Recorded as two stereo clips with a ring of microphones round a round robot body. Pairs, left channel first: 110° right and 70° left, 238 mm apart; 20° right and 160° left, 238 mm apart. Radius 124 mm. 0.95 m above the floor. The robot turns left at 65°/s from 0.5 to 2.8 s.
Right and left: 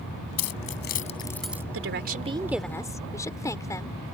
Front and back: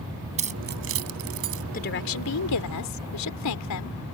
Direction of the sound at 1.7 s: 35° left.